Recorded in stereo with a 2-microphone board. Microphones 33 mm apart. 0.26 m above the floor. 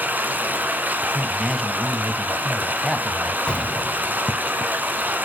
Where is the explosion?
35° left (ahead or behind), 0.6 m.